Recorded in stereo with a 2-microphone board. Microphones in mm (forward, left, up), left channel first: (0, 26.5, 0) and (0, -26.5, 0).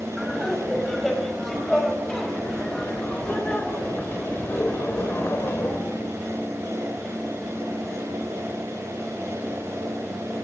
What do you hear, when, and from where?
0.2 s laughter: centre (ahead or behind), 5.5 m; by 5.8 s 45° left (ahead or behind), 4 m